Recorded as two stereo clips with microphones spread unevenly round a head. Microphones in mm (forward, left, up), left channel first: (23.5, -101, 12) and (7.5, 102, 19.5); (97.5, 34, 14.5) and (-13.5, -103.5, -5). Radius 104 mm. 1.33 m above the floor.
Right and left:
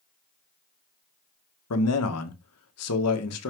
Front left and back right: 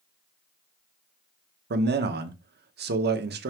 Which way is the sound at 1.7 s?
100° right.